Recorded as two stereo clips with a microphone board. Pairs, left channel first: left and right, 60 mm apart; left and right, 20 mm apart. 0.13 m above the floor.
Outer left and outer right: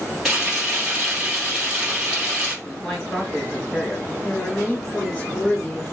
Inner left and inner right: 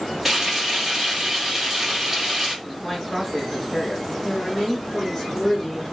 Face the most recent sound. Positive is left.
turn(degrees=20)  # may be behind; listen again after turning